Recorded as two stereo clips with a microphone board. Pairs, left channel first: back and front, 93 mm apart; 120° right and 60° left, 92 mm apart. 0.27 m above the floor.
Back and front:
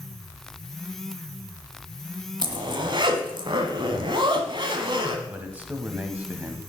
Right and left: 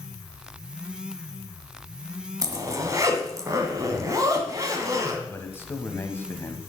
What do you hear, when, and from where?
2.4 s a zipper: 15° left, 1.3 m
5.3 s a man speaking: 65° right, 1.2 m